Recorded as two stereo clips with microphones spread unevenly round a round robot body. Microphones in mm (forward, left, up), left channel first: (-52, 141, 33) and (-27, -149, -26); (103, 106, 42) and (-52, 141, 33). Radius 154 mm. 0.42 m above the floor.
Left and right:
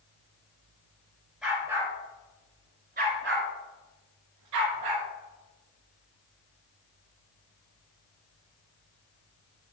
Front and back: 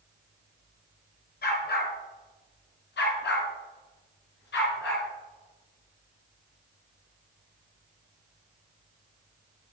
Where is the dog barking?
5° left, 2.5 m; by 5.1 s 60° right, 2.5 m.